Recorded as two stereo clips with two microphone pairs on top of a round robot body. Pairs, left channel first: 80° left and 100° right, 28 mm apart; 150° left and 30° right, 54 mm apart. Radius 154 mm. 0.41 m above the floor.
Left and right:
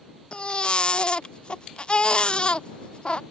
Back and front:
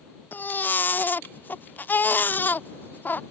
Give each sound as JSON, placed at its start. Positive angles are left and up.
{"t": 0.3, "sound": "a baby crying", "azimuth_deg": 95}